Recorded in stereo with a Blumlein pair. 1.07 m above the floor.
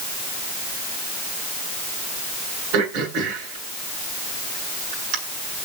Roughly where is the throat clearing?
Ahead right.